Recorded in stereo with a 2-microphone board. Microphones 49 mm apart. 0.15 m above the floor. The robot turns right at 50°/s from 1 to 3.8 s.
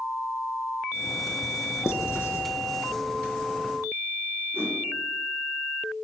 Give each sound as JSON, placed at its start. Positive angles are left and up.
{"t": 1.9, "sound": "writing", "side_deg": 60, "distance_m": 0.8}
{"t": 4.5, "sound": "a whoosh", "side_deg": -40, "distance_m": 2.0}